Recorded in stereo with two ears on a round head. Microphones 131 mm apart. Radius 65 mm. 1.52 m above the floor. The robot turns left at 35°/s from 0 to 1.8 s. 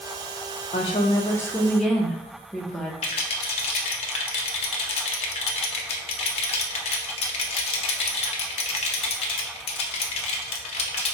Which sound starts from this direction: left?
A rattle, at 3.0 s.